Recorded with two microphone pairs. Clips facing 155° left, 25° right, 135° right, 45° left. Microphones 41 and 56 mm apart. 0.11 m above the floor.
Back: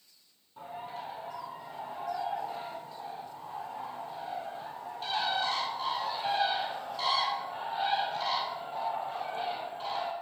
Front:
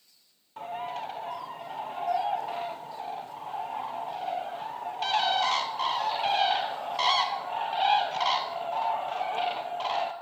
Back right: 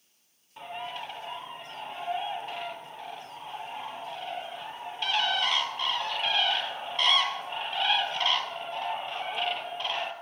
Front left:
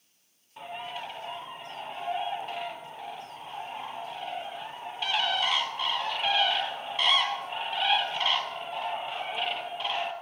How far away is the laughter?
I don't hear laughter.